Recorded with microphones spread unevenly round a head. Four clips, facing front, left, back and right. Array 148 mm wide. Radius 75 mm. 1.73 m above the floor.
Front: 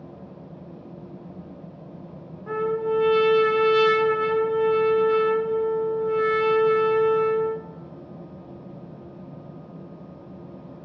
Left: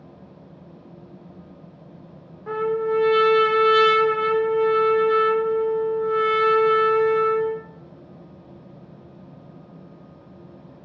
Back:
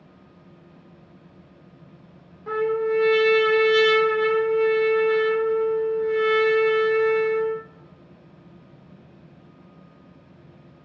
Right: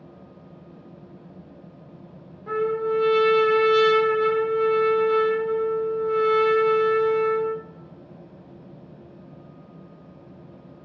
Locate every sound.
2.5 s a trumpet: 120° left, 1.8 m